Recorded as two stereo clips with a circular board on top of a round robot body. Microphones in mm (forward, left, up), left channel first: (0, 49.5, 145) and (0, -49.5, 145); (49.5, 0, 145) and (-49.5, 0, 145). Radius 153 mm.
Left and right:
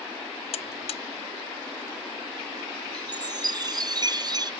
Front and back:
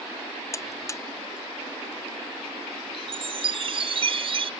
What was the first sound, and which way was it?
A buzzer, 65° left.